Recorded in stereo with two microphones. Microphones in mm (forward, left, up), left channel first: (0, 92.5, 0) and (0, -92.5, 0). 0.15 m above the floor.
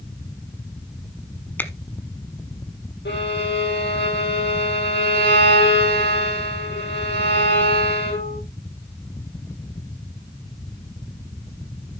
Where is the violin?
75° left (ahead or behind), 6 m.